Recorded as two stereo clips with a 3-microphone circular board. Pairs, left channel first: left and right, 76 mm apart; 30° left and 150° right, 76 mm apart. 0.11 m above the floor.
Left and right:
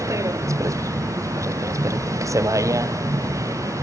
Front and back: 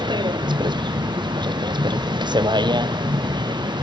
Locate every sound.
0.0 s a vehicle: 135° right